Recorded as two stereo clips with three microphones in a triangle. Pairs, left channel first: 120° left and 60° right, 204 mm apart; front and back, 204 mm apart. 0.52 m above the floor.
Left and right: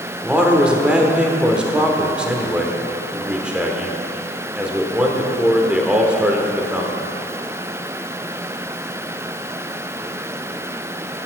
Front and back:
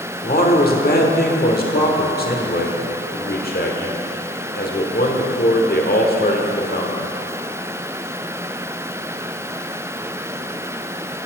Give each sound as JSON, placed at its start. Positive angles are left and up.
{"t": 0.2, "sound": "a man speaking", "azimuth_deg": 25, "distance_m": 1.1}